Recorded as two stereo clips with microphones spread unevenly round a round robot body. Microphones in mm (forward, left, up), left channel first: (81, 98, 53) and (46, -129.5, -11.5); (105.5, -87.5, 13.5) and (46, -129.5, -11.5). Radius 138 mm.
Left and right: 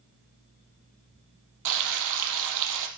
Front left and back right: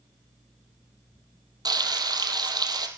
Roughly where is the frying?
Right.